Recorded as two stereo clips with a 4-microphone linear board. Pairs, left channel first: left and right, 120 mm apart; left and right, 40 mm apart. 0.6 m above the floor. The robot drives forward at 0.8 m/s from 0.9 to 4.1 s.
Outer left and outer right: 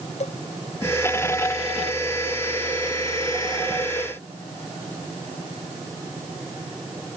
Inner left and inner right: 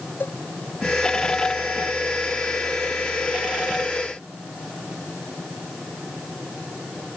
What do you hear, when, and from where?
0.2 s a cowbell: 65° left (ahead or behind)